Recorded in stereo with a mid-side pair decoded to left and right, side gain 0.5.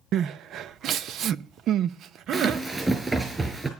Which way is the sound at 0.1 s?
65° right.